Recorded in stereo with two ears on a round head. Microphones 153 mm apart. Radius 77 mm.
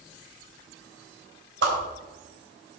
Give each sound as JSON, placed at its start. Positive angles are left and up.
{"t": 1.6, "sound": "a whoosh", "side_deg": -70, "distance_m": 3.5}